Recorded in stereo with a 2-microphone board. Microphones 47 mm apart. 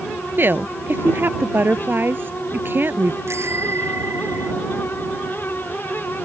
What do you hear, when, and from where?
0.4 s a woman speaking: 50° right (ahead or behind)
3.3 s a bicycle bell: 65° right (ahead or behind)